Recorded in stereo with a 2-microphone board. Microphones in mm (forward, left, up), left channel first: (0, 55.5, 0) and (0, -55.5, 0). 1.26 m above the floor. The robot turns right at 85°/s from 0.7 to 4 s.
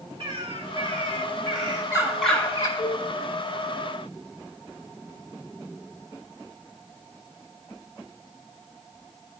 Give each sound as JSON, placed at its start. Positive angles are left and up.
{"t": 0.2, "sound": "a bird", "azimuth_deg": -130, "distance_m": 1.8}
{"t": 2.8, "sound": "a cowbell", "side_deg": 50, "distance_m": 3.0}